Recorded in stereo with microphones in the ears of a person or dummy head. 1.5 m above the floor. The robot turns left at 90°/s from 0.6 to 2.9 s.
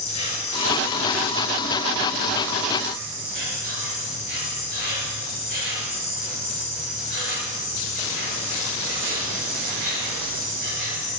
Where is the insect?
150° left, 6.5 m; by 11.2 s 60° right, 6.5 m.